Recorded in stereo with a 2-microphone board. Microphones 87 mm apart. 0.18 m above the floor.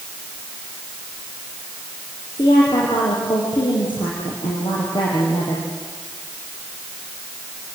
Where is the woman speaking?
75° left (ahead or behind), 6 m.